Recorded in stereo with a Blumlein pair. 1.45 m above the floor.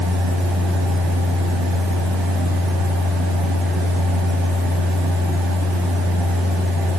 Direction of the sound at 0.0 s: 35° right.